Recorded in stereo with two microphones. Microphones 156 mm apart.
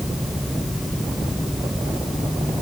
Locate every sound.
Only background noise.